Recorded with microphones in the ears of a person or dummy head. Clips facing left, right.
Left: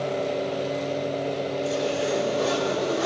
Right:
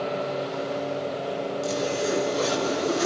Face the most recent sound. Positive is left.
turn(degrees=-70)  # may be behind; listen again after turning